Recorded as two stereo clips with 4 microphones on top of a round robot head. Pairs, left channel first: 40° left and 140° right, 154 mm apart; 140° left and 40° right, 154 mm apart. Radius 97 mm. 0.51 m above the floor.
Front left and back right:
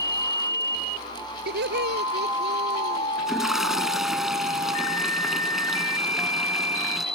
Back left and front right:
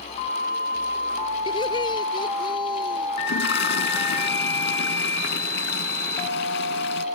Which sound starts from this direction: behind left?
A toilet flushing, at 3.2 s.